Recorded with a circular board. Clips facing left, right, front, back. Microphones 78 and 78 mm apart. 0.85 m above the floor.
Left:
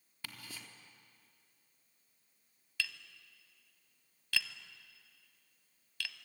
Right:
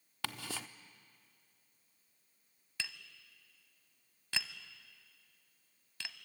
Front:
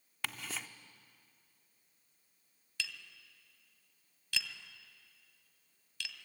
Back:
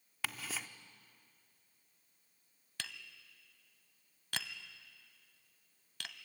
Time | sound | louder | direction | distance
0.2 | ticking | right 8 dB, even | 90° right | 0.8 m
2.8 | tapping | left 4 dB, front 4 dB | 150° right | 1.1 m